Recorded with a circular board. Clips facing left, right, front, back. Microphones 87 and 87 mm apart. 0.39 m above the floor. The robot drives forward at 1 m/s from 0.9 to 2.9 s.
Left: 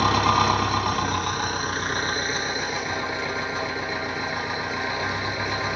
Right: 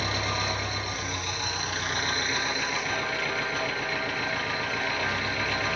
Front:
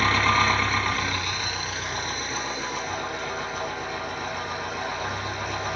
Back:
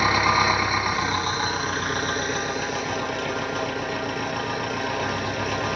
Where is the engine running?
105° left, 0.9 m; by 5.8 s 160° left, 2.5 m.